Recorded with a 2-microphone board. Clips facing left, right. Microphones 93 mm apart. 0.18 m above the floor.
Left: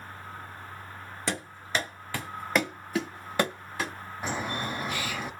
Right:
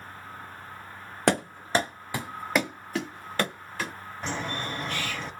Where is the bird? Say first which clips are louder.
Left 1 dB; 10° left (ahead or behind), 0.6 m.